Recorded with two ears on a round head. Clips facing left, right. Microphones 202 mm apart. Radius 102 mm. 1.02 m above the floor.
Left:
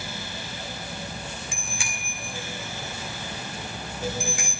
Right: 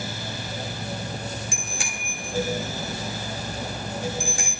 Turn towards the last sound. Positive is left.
turn(degrees=-35)  # may be behind; listen again after turning